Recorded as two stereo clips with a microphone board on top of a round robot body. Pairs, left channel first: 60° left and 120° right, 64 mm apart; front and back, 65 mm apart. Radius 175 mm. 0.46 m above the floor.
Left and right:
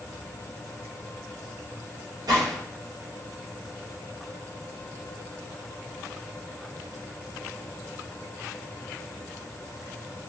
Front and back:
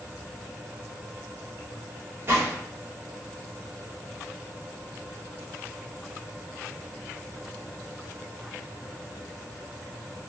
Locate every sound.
2.3 s a gunshot: 125° right, 1.4 m